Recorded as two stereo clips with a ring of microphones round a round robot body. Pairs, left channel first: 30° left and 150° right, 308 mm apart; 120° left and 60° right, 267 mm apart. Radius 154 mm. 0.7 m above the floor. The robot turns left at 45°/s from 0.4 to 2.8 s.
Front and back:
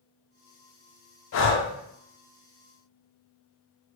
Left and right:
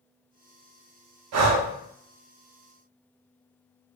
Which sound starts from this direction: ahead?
Breathing, at 1.3 s.